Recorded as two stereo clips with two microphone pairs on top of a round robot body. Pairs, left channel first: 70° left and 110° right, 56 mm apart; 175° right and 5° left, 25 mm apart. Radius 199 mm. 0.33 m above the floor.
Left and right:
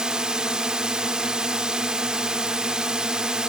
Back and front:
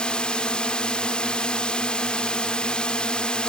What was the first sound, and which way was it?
A drone, 175° left.